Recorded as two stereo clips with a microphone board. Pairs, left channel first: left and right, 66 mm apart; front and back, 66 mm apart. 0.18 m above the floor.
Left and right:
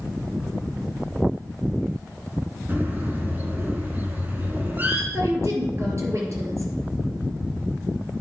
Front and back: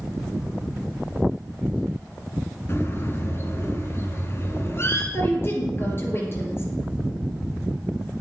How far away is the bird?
About 2.5 m.